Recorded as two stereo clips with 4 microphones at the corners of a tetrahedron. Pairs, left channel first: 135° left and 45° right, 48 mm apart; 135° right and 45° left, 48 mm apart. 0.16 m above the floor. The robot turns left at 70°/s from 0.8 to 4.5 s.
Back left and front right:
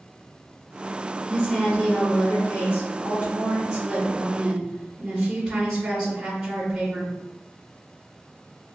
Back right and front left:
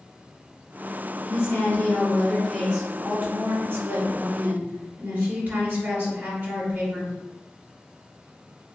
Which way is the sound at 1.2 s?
115° right.